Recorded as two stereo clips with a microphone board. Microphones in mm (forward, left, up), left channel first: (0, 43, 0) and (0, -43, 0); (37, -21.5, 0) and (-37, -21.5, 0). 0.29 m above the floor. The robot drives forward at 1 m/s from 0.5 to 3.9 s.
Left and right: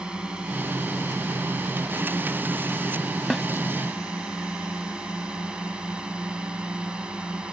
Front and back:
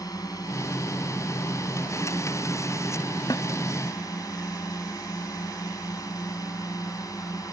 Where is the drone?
10° right; by 7.5 s 15° right.